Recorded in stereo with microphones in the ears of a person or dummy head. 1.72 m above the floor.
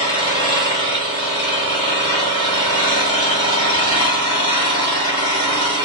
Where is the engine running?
25° left (ahead or behind), 1.5 m.